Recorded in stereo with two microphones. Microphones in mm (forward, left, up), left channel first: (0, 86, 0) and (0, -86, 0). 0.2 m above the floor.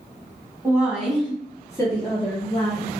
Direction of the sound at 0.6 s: 15° right (ahead or behind).